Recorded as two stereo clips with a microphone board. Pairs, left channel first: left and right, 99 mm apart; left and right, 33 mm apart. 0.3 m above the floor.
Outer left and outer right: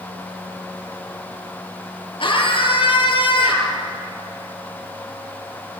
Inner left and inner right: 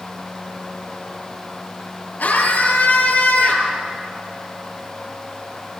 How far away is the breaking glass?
No breaking glass in this recording.